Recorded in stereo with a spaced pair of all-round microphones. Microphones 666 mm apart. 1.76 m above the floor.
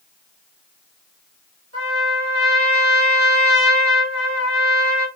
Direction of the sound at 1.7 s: 20° right (ahead or behind).